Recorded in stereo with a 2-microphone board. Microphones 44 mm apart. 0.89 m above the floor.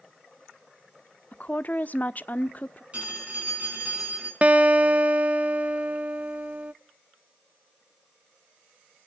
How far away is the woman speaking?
About 0.6 m.